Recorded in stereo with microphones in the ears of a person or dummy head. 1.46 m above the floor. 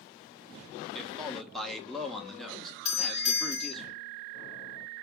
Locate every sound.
0.9 s a man speaking: centre (ahead or behind), 0.7 m
2.9 s a doorbell: 35° left (ahead or behind), 0.7 m